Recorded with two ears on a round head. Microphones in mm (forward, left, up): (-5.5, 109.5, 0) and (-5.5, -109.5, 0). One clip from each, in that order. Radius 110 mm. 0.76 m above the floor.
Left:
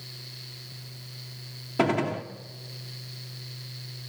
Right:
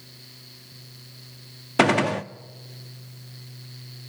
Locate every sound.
1.8 s a gunshot: 50° right (ahead or behind), 0.6 m